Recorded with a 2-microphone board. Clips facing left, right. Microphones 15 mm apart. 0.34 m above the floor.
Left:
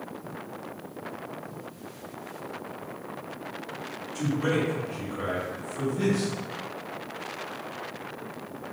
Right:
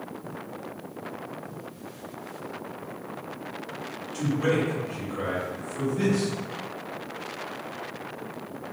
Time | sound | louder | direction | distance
4.1 | a man speaking | right 2 dB | 35° right (ahead or behind) | 1.7 m